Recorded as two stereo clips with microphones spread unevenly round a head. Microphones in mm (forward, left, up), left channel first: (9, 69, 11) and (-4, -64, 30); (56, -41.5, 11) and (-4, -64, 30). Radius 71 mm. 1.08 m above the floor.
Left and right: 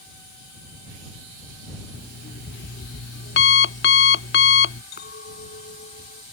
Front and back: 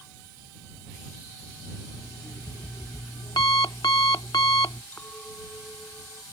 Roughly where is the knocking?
I don't hear knocking.